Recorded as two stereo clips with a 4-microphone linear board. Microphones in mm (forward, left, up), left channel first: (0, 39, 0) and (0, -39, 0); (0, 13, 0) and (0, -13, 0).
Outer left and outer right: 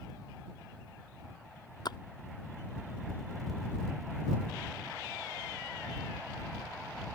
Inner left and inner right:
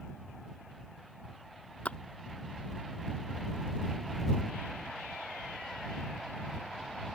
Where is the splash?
65° left (ahead or behind).